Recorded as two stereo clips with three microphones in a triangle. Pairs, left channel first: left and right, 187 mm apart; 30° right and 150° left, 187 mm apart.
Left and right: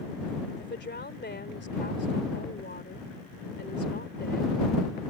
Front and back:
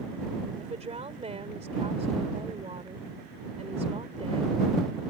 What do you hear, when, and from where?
0.6 s a woman speaking: 95° left